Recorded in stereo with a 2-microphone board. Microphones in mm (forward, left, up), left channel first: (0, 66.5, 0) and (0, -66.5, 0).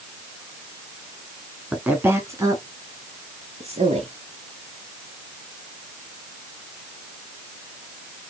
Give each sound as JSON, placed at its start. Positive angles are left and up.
{"t": 1.7, "sound": "a woman speaking", "side_deg": -5, "distance_m": 1.2}